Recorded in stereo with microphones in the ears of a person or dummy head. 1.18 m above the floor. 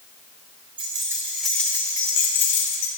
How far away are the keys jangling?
About 0.8 m.